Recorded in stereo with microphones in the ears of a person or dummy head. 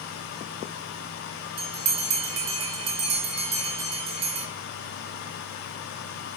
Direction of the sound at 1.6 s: 30° right (ahead or behind).